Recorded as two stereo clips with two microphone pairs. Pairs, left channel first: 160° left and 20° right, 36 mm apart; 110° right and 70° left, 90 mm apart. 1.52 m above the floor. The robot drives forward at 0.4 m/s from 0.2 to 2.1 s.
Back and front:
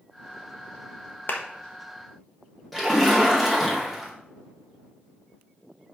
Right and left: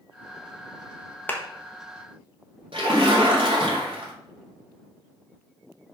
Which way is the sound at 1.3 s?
175° right.